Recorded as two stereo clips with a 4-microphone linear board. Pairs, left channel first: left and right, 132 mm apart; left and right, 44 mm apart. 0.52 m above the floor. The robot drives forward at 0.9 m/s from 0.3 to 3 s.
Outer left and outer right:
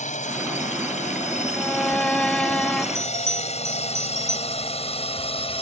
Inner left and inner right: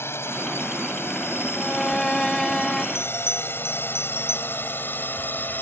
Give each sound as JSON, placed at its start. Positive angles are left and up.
{"t": 0.0, "sound": "a drone", "side_deg": 65}
{"t": 1.5, "sound": "a violin", "side_deg": 10}
{"t": 3.0, "sound": "a bell", "side_deg": 80}